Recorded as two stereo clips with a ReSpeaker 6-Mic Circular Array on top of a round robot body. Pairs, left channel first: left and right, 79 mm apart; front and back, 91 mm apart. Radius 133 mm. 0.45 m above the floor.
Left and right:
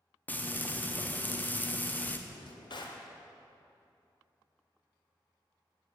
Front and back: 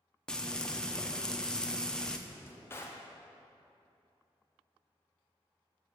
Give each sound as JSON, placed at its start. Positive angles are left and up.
{"t": 0.3, "sound": "frying", "azimuth_deg": 70, "distance_m": 0.8}
{"t": 2.3, "sound": "a drawer", "azimuth_deg": 65, "distance_m": 0.8}